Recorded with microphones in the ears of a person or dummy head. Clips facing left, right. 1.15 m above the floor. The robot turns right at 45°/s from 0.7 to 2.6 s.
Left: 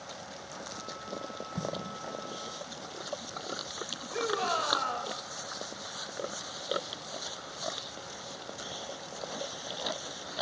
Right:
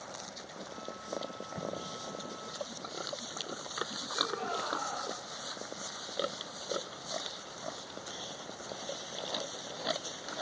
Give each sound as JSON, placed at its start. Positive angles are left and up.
{"t": 1.6, "sound": "an explosion", "side_deg": 60, "distance_m": 1.3}
{"t": 4.1, "sound": "a shout", "side_deg": 85, "distance_m": 6.0}